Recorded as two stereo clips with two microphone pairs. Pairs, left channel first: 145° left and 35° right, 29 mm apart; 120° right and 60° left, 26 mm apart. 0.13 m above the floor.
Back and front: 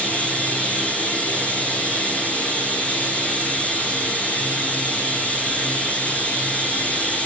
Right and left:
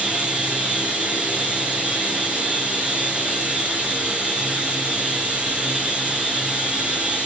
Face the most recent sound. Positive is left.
turn(degrees=110)